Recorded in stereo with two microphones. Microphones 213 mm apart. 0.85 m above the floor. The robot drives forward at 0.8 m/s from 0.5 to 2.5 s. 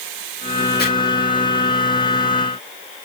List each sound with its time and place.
0.8 s chopping: 50° left (ahead or behind), 4.5 m